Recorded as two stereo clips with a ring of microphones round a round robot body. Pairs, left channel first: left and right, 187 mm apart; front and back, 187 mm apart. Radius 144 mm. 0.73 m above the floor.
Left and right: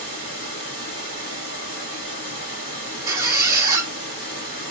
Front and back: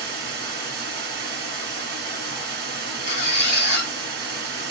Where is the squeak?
30° right, 0.7 m.